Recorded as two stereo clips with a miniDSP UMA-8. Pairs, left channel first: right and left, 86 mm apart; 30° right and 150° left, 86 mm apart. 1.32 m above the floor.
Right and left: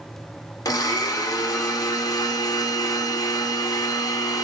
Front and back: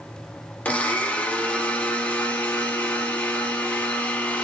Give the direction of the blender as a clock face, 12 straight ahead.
3 o'clock.